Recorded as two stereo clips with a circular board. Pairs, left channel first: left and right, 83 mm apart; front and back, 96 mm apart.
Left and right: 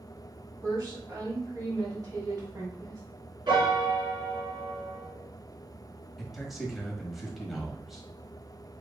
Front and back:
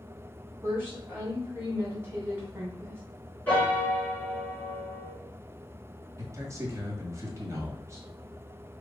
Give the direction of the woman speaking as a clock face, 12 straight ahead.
4 o'clock.